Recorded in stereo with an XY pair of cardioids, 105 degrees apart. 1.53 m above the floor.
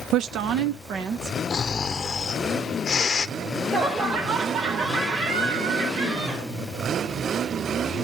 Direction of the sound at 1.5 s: 40° left.